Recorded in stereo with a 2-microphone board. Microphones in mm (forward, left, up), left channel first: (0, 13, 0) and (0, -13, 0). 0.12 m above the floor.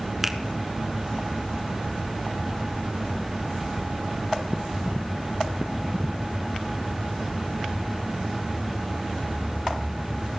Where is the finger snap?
5° right (ahead or behind), 1.0 m.